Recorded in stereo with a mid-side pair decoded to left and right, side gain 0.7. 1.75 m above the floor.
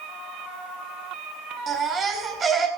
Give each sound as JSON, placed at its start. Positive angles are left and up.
{"t": 1.7, "sound": "a baby crying", "azimuth_deg": -35, "distance_m": 8.0}